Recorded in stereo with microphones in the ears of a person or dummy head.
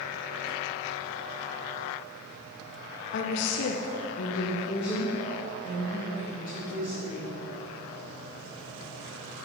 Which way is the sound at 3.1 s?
55° left (ahead or behind).